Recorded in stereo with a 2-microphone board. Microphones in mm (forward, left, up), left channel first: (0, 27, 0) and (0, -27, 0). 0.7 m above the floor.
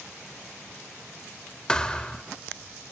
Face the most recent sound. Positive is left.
turn(degrees=15)  # may be behind; listen again after turning